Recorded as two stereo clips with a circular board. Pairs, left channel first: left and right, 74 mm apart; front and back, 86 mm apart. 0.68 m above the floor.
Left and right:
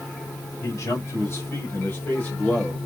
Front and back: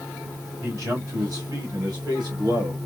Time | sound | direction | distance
0.6 | a man speaking | 125° left | 3 m